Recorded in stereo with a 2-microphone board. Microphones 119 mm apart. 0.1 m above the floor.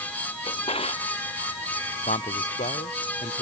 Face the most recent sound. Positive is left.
turn(degrees=75)  # may be behind; listen again after turning